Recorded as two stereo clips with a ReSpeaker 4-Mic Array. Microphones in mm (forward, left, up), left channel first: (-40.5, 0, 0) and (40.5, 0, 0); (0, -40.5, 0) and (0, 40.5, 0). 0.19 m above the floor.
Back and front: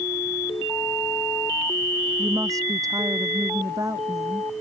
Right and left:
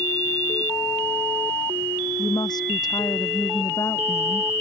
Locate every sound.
2.2 s a woman speaking: 50° right